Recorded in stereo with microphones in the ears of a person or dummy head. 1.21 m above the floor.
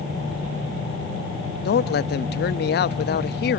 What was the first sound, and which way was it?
A man speaking, 50° left (ahead or behind).